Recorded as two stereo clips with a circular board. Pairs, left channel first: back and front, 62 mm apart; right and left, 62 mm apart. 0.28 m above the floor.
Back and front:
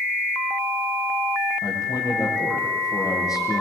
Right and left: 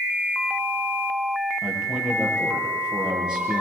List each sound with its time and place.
1.6 s a man speaking: 165° left, 7 m